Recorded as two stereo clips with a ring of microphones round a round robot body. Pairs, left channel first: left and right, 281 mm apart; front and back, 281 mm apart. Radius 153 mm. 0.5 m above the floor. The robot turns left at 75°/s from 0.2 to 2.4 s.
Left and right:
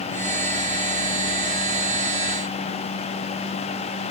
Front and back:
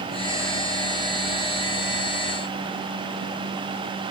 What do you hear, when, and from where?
Only background noise.